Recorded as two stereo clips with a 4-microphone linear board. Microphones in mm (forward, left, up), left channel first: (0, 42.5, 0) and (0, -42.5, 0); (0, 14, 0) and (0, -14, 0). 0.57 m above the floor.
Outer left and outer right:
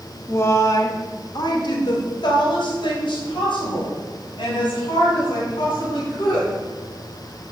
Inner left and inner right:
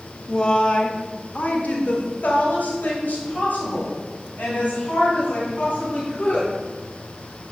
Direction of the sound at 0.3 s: 25° left (ahead or behind).